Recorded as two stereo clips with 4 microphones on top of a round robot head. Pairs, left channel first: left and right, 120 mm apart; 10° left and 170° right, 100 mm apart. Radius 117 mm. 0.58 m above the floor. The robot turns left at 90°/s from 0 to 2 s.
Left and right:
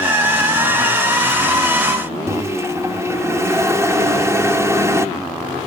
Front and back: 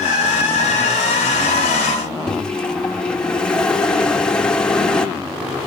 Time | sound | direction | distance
2.3 | a microwave | 60° right | 1.0 m